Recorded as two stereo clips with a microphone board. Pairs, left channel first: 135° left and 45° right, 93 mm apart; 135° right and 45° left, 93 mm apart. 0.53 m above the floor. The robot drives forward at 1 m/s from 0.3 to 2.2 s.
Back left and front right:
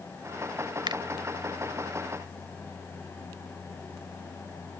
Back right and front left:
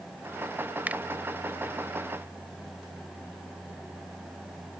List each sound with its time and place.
0.9 s a finger snap: 25° right